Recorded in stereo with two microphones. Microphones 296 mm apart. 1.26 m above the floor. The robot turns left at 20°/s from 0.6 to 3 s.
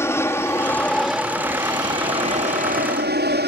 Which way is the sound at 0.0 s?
10° left.